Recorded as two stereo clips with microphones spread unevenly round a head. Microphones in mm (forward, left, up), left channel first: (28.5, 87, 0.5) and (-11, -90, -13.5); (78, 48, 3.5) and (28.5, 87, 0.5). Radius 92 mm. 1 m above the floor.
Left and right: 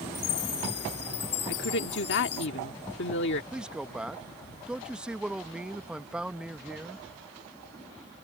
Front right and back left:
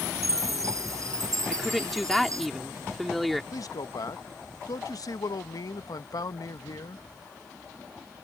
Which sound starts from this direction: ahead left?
A woman speaking, at 1.5 s.